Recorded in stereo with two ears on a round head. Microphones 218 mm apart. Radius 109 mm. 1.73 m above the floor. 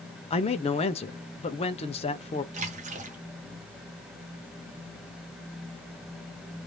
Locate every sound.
0.3 s a man speaking: 25° left (ahead or behind), 0.7 m
2.5 s a splash: 30° right (ahead or behind), 1.0 m